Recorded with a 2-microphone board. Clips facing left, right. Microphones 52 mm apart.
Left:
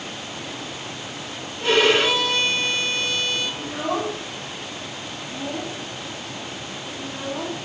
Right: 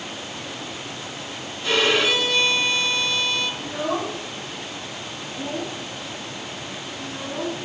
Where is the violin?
65° left (ahead or behind), 1.5 m.